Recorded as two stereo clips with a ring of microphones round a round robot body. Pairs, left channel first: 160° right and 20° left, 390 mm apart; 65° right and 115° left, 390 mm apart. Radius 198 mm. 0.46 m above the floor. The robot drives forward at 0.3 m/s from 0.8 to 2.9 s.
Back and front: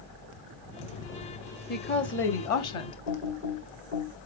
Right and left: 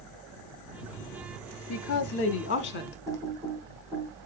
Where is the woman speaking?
100° right, 1.1 m; by 3.0 s 125° right, 1.2 m.